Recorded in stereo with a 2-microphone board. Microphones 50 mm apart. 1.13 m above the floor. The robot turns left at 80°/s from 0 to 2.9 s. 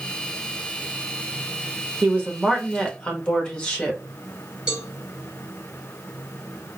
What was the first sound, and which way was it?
A woman speaking, 130° right.